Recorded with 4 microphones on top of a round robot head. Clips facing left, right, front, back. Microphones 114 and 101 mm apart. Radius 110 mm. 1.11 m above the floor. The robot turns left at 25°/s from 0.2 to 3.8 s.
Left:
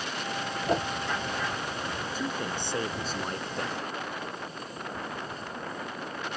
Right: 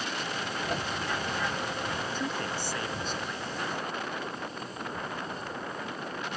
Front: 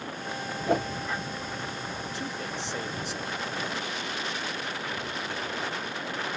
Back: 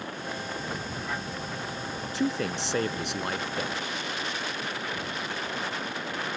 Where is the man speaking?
175° left; by 3.8 s 135° left.